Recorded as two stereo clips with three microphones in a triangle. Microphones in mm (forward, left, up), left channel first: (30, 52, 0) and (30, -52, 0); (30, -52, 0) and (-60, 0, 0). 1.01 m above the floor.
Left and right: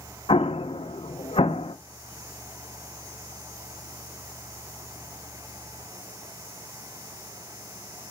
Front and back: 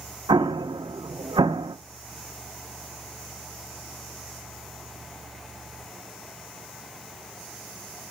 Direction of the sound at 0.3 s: 110° left.